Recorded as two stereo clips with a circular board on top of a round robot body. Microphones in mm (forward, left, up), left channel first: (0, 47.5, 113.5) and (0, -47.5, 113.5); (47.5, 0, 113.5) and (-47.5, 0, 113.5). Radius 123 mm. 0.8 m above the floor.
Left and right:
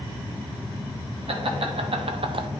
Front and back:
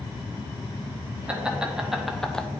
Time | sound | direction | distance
1.3 | laughter | 100° right | 1.6 m